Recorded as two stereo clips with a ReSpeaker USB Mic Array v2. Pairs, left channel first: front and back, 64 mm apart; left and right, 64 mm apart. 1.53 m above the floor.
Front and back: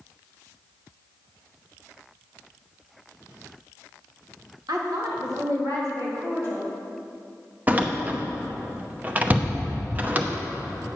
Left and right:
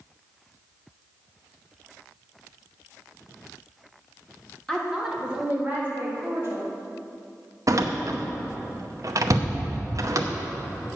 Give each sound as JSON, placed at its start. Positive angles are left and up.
{"t": 4.7, "sound": "a woman speaking", "azimuth_deg": 175, "distance_m": 1.8}
{"t": 7.7, "sound": "a door slam", "azimuth_deg": -115, "distance_m": 0.8}